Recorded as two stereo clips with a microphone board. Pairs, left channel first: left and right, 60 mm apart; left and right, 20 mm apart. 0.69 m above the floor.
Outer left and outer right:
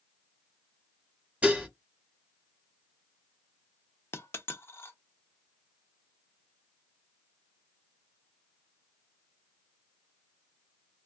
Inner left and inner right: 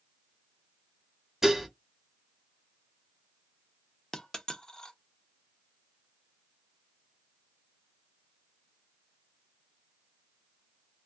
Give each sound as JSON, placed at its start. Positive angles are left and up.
{"t": 1.4, "sound": "dishes clattering", "side_deg": -15, "distance_m": 0.9}
{"t": 4.1, "sound": "a dropped coin", "side_deg": 40, "distance_m": 0.5}